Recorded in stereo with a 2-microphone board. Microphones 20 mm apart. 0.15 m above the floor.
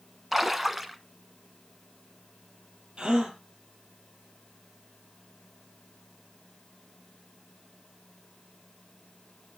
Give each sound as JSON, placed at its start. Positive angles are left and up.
{"t": 0.3, "sound": "a splash", "side_deg": -5, "distance_m": 0.9}
{"t": 3.0, "sound": "a gasp", "side_deg": -55, "distance_m": 3.5}